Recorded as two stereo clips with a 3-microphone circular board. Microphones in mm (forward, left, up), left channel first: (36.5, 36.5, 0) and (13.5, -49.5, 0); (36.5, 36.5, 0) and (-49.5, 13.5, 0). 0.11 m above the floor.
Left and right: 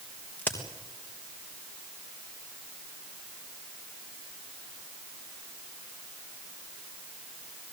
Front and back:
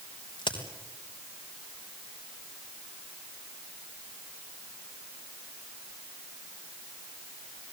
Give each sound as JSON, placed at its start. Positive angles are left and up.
{"t": 0.4, "sound": "a crack", "azimuth_deg": 5, "distance_m": 4.0}